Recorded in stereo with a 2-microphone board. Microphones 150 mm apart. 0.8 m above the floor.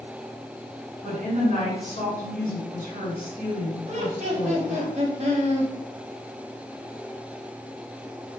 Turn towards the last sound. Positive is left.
turn(degrees=-45)  # may be behind; listen again after turning